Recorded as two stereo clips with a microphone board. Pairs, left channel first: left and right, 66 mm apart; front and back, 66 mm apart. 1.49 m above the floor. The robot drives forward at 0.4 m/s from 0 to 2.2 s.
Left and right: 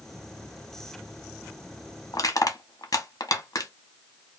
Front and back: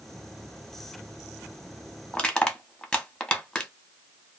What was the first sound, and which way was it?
Crushing, 75° left.